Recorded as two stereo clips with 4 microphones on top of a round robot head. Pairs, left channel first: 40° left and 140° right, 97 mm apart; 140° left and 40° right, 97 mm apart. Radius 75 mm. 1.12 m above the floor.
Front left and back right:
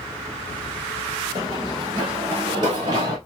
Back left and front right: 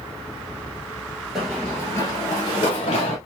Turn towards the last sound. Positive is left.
turn(degrees=170)